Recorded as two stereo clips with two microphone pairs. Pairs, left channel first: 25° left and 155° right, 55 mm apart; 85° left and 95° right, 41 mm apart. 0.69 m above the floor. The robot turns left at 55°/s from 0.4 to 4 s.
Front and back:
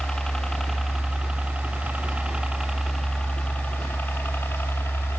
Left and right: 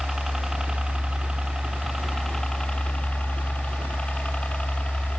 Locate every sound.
0.0 s a helicopter: 25° right; by 5.2 s 35° left